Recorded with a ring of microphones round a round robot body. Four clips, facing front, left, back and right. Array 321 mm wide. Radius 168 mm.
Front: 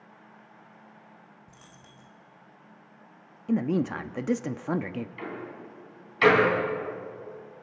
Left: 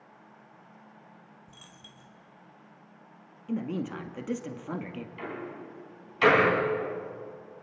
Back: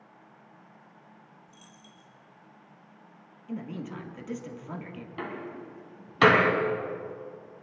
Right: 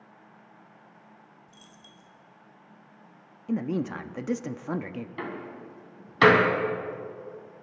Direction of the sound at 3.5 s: 20° right.